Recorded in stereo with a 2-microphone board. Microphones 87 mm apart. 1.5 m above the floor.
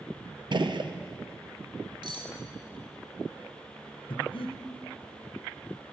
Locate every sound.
0.5 s a gunshot: 65° right (ahead or behind), 0.6 m
2.0 s cutlery clinking: 60° right (ahead or behind), 1.3 m
4.1 s breathing: 80° left, 0.9 m